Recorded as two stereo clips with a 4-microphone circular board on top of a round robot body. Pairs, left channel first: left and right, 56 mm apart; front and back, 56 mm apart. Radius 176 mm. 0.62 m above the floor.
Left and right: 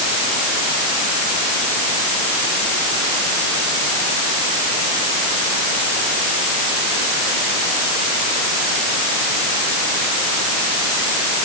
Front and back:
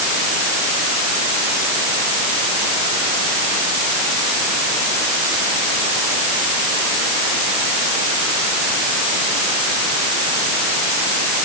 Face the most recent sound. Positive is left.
No sound to turn to.